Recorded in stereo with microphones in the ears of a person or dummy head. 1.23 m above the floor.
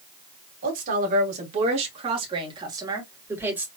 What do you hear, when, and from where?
0.6 s a woman speaking: 50° right (ahead or behind), 3 m; by 3.7 s 10° right (ahead or behind), 3 m